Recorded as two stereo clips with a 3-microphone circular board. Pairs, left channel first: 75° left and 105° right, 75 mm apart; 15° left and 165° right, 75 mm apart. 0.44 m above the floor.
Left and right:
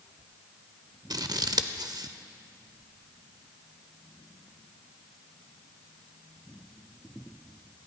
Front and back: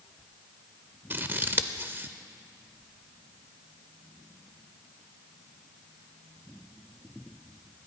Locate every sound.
1.1 s scissors: 110° right, 0.5 m